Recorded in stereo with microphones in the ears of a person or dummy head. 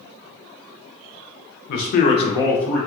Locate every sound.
1.7 s a man speaking: 55° left (ahead or behind), 0.6 m; by 2.8 s 5° left (ahead or behind), 0.9 m